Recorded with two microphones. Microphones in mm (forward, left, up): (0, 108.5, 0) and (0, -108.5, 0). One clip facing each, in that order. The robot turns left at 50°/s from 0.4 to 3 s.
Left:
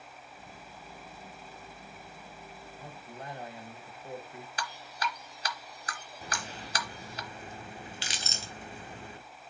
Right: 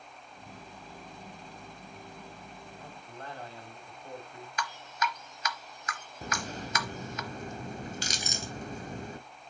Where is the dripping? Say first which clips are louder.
Right 3 dB; 35° left (ahead or behind), 0.7 m.